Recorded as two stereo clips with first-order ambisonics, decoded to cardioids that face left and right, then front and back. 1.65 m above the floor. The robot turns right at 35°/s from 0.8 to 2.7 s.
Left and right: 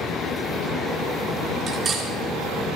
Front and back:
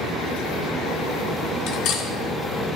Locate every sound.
1.7 s cutlery clinking: 30° right, 2.5 m; by 2.1 s 15° right, 2.5 m